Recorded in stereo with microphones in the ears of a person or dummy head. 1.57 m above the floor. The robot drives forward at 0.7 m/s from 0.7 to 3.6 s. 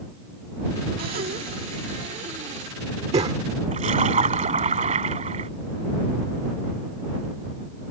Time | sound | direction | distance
1.0 | breathing | 40° right (ahead or behind) | ?
3.7 | a splash | 30° right (ahead or behind) | ?